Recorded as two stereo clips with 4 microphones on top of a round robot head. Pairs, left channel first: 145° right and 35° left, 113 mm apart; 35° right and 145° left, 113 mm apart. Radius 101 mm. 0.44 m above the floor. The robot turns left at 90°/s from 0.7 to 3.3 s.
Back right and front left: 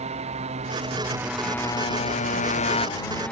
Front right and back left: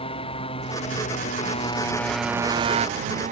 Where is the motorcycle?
10° left; by 3.3 s 135° left.